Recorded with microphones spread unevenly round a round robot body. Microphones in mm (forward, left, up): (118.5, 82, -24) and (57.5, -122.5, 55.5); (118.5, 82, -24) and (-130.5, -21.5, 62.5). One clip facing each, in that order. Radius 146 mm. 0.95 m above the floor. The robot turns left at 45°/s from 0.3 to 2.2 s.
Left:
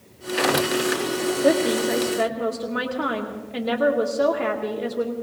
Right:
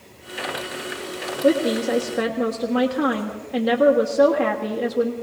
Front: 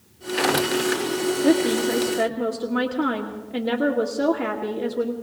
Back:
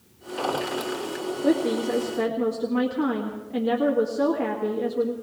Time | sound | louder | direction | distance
1.4 | a woman speaking | right 2 dB, front 2 dB | 55° right | 1.5 m